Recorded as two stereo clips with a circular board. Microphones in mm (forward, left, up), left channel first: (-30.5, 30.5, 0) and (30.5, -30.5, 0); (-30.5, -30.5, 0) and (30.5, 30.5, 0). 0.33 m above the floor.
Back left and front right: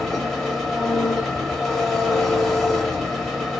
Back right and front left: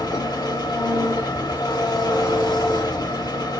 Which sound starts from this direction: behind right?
An engine running, at 0.0 s.